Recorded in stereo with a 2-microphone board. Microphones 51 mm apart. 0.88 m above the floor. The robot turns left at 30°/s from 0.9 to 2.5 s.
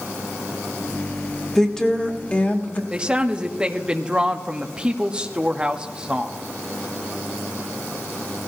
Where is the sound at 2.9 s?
15° right (ahead or behind), 1.0 m.